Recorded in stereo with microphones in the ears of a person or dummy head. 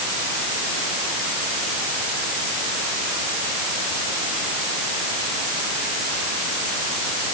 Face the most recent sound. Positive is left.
No sound to turn to.